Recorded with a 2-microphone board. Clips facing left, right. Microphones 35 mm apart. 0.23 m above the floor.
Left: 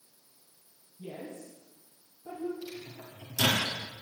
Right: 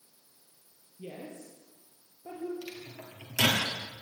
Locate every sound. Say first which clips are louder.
1.0 s a woman speaking: left 1 dB; 40° right (ahead or behind), 6 m
2.6 s a microwave: left 1 dB; 75° right (ahead or behind), 4.5 m